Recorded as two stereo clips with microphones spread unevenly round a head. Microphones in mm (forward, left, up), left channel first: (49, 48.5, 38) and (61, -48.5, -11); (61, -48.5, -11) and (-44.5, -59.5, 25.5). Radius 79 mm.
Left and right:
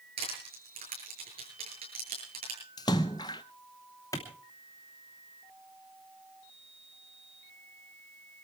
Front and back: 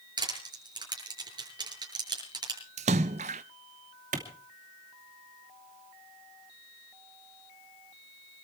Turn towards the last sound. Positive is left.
turn(degrees=170)